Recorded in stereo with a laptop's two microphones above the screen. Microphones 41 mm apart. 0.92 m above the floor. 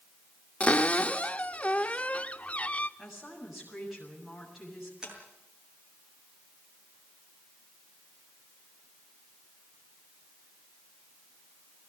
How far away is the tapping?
About 7.5 m.